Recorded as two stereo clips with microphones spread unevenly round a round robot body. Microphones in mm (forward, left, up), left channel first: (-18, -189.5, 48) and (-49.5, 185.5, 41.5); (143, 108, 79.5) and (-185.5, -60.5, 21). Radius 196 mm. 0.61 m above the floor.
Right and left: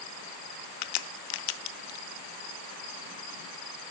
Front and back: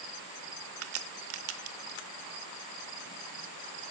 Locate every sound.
0.8 s a crack: 95° right, 0.6 m